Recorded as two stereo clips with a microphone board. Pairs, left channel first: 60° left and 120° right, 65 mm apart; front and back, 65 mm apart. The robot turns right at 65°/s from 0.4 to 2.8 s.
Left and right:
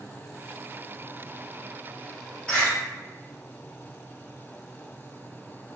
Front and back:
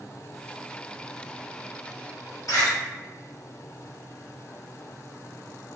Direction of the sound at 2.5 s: 10° right.